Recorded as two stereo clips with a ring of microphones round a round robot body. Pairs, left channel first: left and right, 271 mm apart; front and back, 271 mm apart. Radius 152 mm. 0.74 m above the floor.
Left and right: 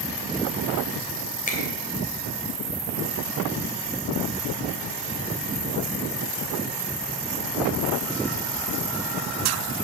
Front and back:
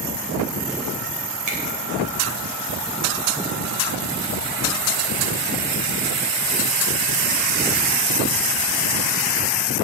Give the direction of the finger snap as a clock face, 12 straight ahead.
7 o'clock.